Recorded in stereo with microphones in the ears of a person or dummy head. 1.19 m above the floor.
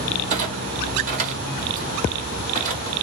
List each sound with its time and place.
0.3 s a clunk: 45° right (ahead or behind), 1.8 m